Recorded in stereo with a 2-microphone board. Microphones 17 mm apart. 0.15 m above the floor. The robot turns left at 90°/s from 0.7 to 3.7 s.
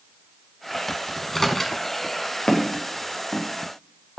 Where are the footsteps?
75° left (ahead or behind), 2.5 m; by 4.2 s 5° left (ahead or behind), 1.6 m.